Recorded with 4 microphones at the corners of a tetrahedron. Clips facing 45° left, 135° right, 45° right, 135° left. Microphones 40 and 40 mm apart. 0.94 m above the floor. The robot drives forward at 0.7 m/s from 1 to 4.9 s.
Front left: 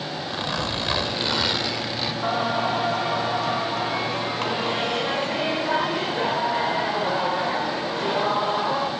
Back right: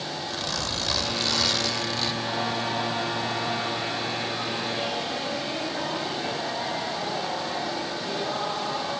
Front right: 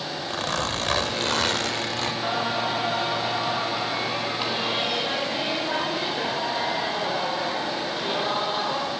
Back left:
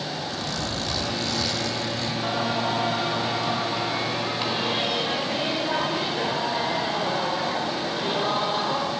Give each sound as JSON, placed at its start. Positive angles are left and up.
{"t": 0.3, "sound": "a zipper", "azimuth_deg": -15, "distance_m": 1.7}
{"t": 2.2, "sound": "singing", "azimuth_deg": 35, "distance_m": 6.0}